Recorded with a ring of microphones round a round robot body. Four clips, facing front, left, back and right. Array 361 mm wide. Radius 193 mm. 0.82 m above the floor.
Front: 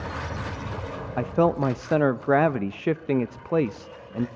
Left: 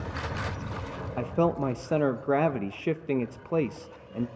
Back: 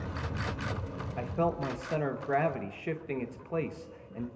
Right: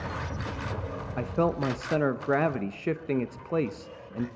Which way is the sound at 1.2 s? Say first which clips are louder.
Left 1 dB, front 9 dB; 5° left.